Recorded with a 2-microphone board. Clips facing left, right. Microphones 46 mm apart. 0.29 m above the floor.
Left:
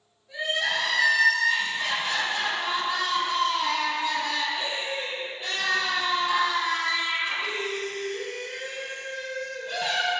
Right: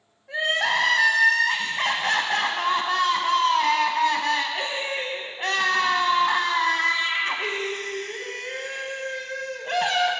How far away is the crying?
About 0.9 m.